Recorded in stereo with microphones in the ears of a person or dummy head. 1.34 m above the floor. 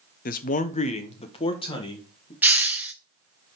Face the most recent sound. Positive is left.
turn(degrees=-10)  # may be behind; listen again after turning